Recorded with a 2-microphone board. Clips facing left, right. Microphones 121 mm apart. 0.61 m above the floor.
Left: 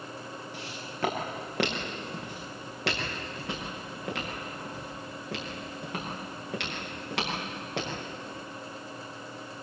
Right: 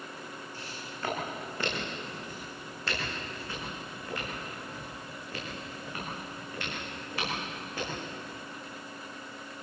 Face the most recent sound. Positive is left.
turn(degrees=80)